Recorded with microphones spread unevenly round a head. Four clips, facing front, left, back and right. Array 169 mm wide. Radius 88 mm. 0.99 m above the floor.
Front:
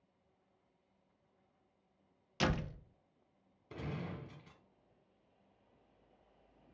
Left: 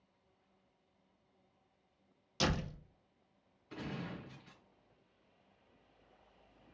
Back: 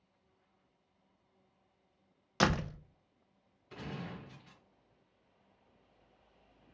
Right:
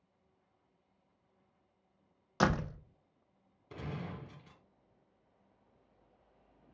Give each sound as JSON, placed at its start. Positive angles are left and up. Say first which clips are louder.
{"t": 2.4, "sound": "a door slam", "louder": "right 5 dB, back 5 dB", "azimuth_deg": -135, "distance_m": 0.5}
{"t": 3.7, "sound": "a gunshot", "louder": "right 1 dB, even", "azimuth_deg": -60, "distance_m": 1.2}